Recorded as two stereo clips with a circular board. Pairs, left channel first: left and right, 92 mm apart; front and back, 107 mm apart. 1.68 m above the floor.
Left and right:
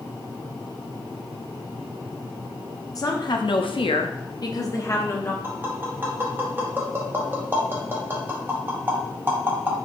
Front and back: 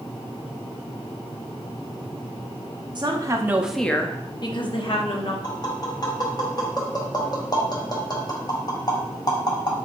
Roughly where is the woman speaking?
Behind left.